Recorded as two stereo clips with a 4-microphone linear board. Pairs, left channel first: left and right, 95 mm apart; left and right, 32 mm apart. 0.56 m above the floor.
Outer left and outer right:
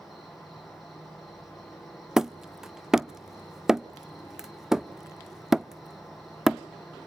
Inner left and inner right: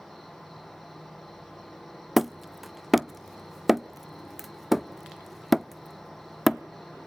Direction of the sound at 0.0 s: Centre (ahead or behind).